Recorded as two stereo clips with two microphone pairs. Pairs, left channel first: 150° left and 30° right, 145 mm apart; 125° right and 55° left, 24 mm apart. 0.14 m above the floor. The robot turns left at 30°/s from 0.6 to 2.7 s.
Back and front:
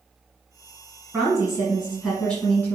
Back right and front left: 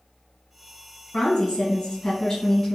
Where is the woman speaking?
110° right, 1.2 m; by 2.8 s 160° right, 1.2 m.